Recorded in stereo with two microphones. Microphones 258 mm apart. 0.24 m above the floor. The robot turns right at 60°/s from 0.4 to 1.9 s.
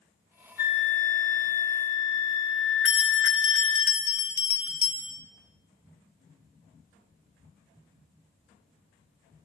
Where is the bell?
55° right (ahead or behind), 1.0 m.